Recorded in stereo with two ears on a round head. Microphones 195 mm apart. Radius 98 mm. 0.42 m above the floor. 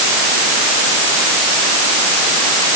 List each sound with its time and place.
Only background noise.